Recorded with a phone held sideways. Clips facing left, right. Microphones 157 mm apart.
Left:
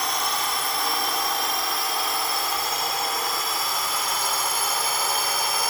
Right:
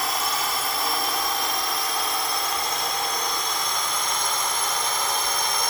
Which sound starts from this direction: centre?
A drone, at 0.0 s.